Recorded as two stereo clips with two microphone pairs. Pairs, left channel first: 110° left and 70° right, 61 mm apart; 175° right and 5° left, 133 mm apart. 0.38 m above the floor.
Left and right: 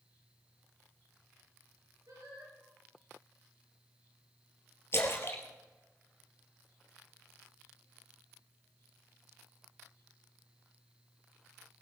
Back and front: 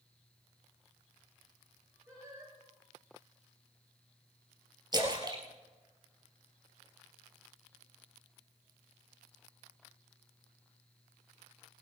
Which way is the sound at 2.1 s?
70° right.